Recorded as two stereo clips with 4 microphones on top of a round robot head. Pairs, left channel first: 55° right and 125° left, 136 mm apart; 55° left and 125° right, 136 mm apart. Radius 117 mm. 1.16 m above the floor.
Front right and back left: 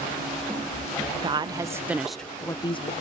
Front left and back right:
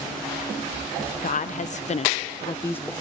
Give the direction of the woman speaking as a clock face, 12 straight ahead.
10 o'clock.